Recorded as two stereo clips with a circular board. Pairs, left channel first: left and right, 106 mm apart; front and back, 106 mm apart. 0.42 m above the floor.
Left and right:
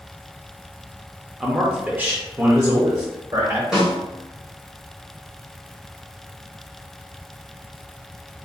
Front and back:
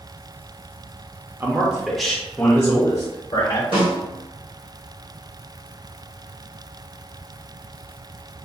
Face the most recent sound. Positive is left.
turn(degrees=-175)